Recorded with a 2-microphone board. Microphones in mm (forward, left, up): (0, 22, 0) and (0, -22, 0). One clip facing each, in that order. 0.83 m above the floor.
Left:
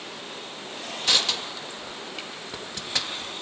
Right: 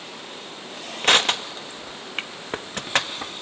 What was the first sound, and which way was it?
Crushing, 45° right (ahead or behind).